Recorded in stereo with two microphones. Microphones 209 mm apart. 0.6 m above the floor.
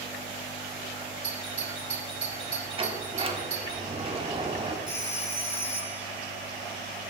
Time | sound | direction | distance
1.2 | a doorbell | 30° left (ahead or behind) | 4.5 m
2.8 | a sliding door | 25° right (ahead or behind) | 1.0 m
4.9 | a phone ringing | 70° left (ahead or behind) | 3.5 m